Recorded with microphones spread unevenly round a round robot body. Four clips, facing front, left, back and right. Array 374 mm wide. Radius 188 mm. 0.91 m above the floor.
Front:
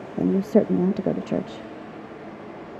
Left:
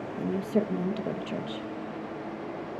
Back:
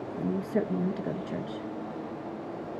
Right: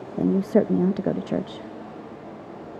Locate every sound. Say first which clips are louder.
0.2 s a woman speaking: right 8 dB, front 10 dB; 35° right, 0.7 m